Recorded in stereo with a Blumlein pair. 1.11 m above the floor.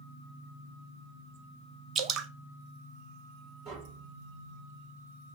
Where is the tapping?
45° right, 3 m.